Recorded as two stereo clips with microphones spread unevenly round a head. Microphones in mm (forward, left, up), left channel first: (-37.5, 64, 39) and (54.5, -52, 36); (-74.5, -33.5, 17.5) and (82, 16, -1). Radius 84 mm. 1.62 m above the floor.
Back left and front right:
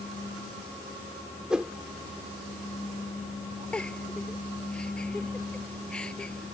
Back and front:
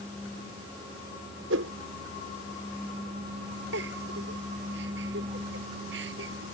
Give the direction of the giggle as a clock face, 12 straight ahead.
11 o'clock.